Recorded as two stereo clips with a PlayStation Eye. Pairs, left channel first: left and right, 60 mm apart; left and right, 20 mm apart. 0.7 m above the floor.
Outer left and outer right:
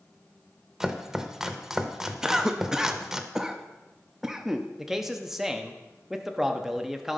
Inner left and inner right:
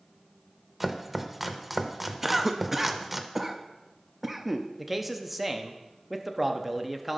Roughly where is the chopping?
Centre.